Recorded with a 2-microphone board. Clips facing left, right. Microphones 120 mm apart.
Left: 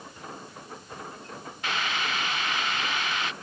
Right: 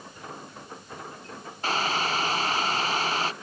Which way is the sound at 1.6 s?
35° right (ahead or behind).